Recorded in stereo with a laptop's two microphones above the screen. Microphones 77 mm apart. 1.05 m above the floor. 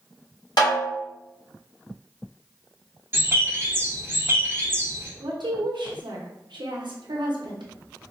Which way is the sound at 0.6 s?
65° left (ahead or behind).